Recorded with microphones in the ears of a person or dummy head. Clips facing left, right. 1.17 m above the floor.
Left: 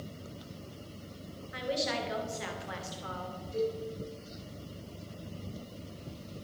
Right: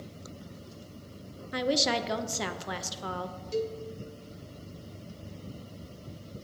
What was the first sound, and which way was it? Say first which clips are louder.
A woman speaking: right 5 dB; 60° right (ahead or behind).